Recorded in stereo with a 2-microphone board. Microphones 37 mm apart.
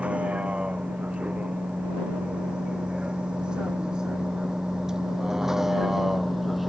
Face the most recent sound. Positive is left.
turn(degrees=0)  # may be behind; listen again after turning